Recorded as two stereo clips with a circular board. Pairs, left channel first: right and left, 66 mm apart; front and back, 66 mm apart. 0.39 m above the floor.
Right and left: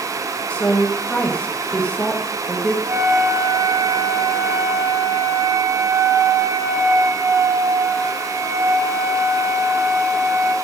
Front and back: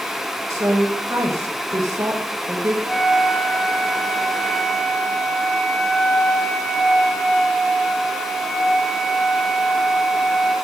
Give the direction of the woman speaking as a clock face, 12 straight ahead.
5 o'clock.